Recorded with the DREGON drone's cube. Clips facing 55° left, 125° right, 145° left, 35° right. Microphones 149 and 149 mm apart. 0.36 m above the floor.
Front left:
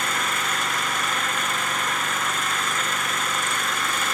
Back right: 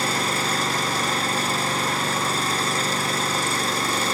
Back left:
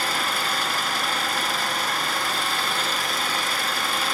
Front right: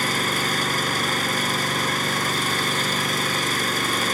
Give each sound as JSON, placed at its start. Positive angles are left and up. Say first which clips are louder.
{"t": 0.0, "sound": "an engine running", "louder": "back right 3 dB, front right 2 dB", "azimuth_deg": -75}